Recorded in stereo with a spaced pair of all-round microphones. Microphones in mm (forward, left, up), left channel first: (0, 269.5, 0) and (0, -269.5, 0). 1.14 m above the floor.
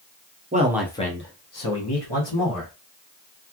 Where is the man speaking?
15° right (ahead or behind), 0.7 m; by 2.7 s 60° left (ahead or behind), 1.3 m.